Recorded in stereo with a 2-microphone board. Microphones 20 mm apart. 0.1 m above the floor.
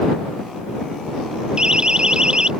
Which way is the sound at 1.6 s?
45° right (ahead or behind).